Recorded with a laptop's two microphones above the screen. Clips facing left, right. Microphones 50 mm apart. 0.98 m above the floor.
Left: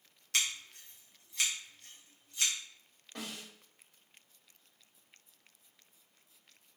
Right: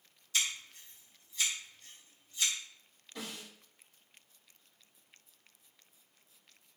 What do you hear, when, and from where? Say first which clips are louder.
0.3 s scissors: even; 70° left (ahead or behind), 1.2 m
3.1 s a snare drum: even; 60° left (ahead or behind), 1.9 m